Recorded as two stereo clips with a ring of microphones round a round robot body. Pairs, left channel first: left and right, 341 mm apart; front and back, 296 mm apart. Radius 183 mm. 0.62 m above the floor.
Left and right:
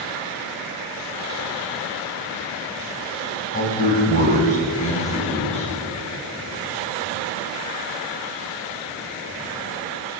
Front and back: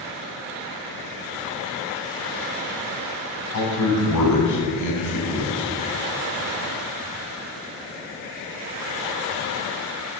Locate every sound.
3.5 s a man speaking: 25° left, 5 m; by 5.7 s 20° left, 6 m